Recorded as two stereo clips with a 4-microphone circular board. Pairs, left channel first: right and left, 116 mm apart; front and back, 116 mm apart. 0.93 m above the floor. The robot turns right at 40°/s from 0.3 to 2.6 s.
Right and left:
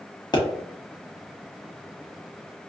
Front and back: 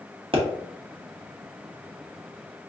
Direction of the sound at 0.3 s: 140° right.